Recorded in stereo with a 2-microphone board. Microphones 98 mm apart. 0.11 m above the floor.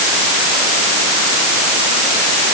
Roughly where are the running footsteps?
No running footsteps in this recording.